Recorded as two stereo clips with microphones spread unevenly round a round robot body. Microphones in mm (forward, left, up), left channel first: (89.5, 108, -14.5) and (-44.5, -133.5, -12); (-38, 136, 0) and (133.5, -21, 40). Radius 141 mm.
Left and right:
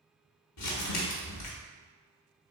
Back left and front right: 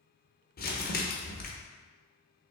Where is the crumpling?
95° left, 1.0 m.